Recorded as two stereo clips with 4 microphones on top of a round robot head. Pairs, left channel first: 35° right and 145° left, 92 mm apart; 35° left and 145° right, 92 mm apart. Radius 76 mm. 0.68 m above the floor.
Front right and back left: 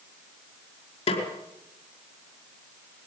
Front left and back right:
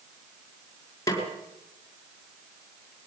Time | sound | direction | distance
1.1 | a snare drum | 20° right | 5 m